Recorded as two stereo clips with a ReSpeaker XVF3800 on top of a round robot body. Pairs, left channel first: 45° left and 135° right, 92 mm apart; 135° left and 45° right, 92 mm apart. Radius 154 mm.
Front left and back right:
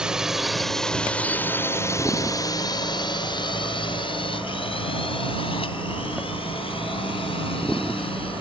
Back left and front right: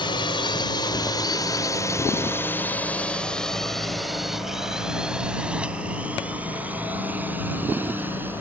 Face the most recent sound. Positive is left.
turn(degrees=25)